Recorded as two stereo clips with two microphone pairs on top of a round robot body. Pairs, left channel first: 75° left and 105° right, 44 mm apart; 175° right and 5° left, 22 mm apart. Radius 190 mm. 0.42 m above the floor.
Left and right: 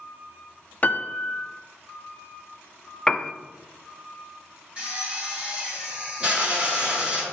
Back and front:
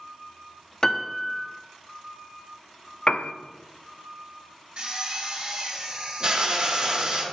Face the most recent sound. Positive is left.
turn(degrees=-40)